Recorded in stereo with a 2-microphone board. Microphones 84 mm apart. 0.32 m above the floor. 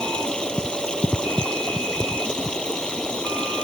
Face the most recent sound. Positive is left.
turn(degrees=10)  # may be behind; listen again after turning